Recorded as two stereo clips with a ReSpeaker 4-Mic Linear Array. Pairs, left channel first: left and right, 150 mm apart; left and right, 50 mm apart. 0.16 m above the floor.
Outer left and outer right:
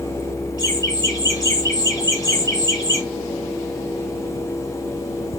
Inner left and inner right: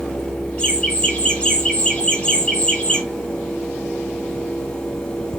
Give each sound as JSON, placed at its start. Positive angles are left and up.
{"t": 0.6, "sound": "laughter", "side_deg": 25, "distance_m": 2.0}